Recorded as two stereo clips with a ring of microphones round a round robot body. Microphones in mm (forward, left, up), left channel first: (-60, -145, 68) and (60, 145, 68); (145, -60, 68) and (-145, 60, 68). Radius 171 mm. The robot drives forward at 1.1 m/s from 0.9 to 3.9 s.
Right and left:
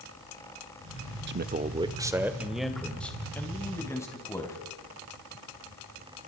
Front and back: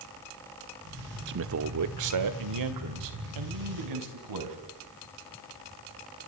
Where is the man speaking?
110° left, 1.0 m; by 4.6 s 165° left, 3.5 m.